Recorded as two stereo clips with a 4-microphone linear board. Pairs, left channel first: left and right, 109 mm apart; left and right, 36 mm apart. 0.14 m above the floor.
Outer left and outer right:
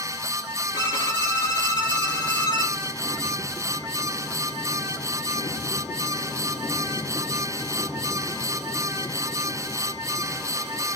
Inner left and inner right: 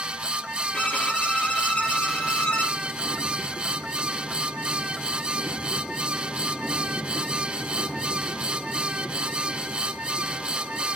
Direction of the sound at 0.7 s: 35° left (ahead or behind).